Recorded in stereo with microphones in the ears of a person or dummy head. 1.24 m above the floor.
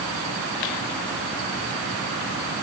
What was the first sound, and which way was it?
Only background noise.